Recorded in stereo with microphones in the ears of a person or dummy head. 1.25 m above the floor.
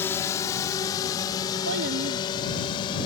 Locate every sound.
0.0 s a drone: 10° left (ahead or behind); by 3.1 s 25° left (ahead or behind)
1.6 s a child speaking: 70° right (ahead or behind)